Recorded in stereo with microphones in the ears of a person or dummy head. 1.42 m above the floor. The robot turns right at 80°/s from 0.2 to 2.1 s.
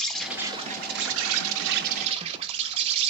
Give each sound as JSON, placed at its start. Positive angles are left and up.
{"t": 0.0, "sound": "an insect", "azimuth_deg": 175, "distance_m": 0.8}